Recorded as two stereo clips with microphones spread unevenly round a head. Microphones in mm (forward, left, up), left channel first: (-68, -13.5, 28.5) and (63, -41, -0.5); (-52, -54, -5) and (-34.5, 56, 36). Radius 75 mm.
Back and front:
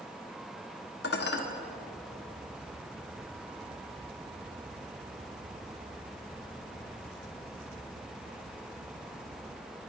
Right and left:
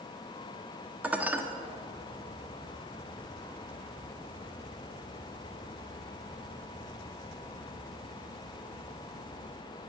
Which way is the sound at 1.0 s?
155° left.